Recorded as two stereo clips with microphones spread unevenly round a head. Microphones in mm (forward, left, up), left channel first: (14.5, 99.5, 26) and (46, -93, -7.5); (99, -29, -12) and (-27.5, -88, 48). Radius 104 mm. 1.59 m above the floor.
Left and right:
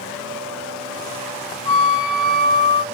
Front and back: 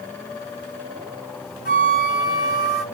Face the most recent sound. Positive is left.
turn(degrees=55)